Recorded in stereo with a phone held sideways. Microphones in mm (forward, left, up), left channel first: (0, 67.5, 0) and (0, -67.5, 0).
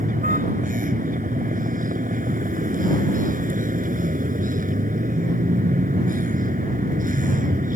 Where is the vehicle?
85° right.